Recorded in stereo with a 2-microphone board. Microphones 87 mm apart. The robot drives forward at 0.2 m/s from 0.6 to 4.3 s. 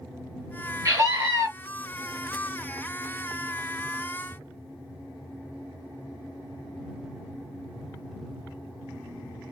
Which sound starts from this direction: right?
A scream, at 0.8 s.